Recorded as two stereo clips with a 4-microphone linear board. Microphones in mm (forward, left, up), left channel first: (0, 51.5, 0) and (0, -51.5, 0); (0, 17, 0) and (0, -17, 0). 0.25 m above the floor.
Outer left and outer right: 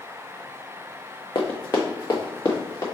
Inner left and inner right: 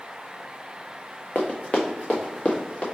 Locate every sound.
1.4 s running footsteps: 45° left (ahead or behind), 1.0 m; by 2.9 s 35° left (ahead or behind), 1.7 m